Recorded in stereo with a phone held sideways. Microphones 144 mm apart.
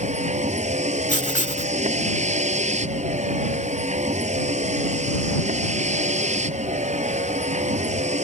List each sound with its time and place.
0.0 s a vehicle: 55° right (ahead or behind)
1.1 s writing: 60° left (ahead or behind)